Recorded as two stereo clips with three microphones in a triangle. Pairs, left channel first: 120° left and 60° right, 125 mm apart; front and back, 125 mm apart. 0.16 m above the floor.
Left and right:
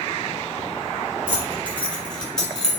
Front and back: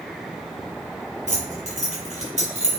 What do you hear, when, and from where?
1.3 s keys jangling: 170° right, 2.0 m; by 2.7 s 155° right, 2.5 m